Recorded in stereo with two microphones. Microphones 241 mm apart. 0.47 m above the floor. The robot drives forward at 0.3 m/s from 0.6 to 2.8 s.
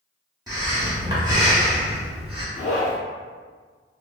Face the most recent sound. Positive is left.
turn(degrees=65)  # may be behind; listen again after turning